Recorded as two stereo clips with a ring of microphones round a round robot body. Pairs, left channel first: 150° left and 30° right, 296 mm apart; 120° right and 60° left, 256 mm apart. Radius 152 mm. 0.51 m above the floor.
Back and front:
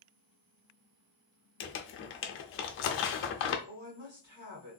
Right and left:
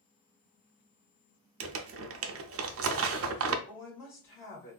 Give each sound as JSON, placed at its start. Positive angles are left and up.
{"t": 1.6, "sound": "crumpling", "azimuth_deg": 100, "distance_m": 0.5}
{"t": 3.7, "sound": "a woman speaking", "azimuth_deg": -70, "distance_m": 2.0}